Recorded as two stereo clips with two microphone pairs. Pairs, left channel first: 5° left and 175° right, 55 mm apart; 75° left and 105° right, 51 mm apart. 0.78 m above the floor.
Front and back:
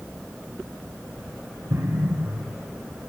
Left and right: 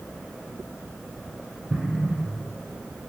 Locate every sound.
1.7 s an explosion: straight behind, 3.5 m